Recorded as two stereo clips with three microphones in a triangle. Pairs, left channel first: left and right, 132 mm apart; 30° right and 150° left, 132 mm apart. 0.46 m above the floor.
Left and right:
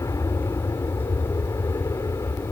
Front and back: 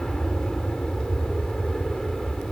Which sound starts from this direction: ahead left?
An aircraft, at 0.0 s.